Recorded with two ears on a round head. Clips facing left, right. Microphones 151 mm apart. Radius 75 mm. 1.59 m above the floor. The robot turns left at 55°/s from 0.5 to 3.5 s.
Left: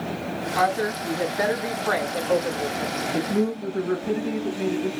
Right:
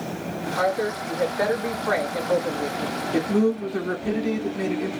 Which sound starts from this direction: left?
A woman speaking, at 0.6 s.